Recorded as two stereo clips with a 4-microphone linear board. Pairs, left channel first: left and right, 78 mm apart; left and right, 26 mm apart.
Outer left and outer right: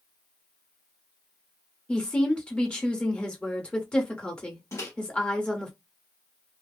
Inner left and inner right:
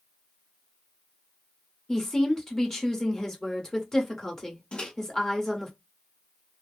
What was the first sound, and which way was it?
A woman speaking, 15° left (ahead or behind).